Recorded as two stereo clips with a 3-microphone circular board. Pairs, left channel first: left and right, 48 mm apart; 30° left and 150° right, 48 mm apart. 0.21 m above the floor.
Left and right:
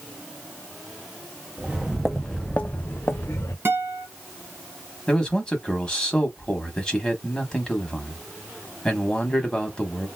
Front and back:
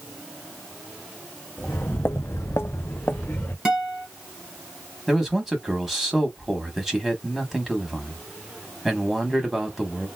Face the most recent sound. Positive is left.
turn(degrees=135)